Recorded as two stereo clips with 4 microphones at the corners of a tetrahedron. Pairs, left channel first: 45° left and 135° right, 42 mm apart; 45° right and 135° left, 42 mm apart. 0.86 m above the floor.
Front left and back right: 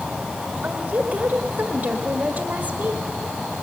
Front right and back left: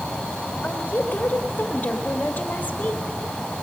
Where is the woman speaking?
90° right, 1.6 m.